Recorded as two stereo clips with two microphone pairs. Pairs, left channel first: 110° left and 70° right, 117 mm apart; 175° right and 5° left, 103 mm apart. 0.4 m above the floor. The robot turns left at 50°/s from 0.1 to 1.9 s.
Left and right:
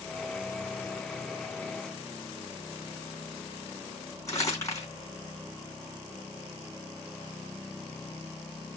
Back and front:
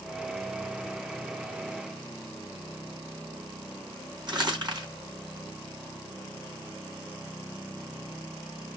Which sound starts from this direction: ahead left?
Crumpling, at 4.3 s.